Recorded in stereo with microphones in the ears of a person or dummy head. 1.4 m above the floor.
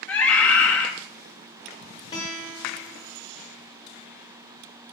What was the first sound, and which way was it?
A scream, 5° left (ahead or behind).